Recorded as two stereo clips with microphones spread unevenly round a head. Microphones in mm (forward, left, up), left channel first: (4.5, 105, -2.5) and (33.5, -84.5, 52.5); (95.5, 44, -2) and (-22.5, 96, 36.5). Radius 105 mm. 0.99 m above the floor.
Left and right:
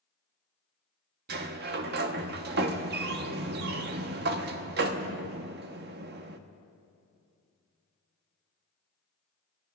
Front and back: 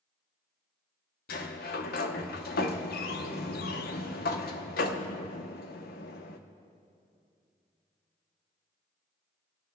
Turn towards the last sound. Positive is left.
turn(degrees=-50)